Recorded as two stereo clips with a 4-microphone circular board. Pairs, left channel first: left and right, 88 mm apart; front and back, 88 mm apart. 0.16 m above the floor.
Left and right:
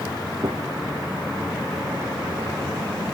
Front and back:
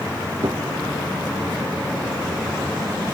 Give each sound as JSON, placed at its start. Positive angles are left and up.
{"t": 0.4, "sound": "a gunshot", "azimuth_deg": -135, "distance_m": 1.2}